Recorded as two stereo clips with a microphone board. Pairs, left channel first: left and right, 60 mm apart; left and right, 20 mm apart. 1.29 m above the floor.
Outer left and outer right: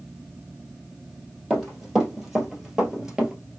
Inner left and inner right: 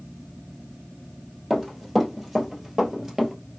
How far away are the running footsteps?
About 2.5 m.